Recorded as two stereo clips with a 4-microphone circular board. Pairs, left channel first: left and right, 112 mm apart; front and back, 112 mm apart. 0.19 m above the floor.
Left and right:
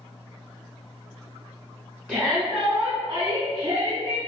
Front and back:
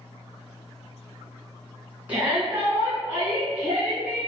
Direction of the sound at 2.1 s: 140° right.